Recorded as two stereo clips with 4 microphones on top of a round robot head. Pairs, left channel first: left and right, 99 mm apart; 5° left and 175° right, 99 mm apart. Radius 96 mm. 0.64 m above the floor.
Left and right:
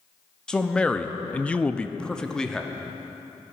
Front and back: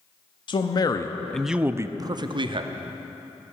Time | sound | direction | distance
0.5 | a man speaking | 10° left | 0.8 m